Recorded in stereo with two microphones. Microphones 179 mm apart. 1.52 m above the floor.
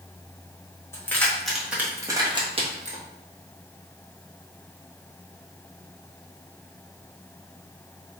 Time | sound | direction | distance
0.9 | keys jangling | 15° left (ahead or behind) | 1.1 m